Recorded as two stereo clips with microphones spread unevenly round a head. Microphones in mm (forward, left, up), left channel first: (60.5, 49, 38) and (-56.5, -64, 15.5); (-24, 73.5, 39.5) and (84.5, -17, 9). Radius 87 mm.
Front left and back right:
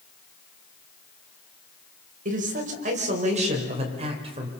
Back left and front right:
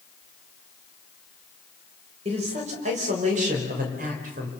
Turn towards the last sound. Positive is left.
turn(degrees=-75)